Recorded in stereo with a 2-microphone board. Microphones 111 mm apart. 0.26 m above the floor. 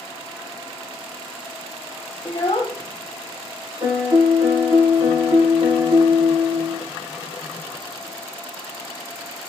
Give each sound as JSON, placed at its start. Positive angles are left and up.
{"t": 2.2, "sound": "a child speaking", "side_deg": 45, "distance_m": 0.7}
{"t": 3.8, "sound": "a piano", "side_deg": -60, "distance_m": 4.0}